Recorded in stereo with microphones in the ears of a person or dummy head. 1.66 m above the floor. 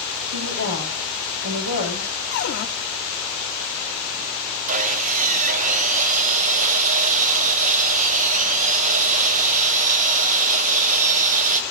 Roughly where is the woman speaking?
Right.